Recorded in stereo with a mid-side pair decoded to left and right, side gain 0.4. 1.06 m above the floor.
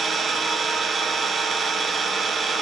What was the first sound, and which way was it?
An engine running, 45° right.